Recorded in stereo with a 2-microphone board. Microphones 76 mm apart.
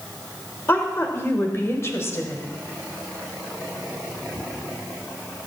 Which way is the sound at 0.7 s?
30° left (ahead or behind).